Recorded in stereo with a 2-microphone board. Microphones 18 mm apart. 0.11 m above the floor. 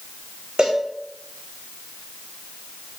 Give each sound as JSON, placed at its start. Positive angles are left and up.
{"t": 0.6, "sound": "a cowbell", "side_deg": -75, "distance_m": 3.0}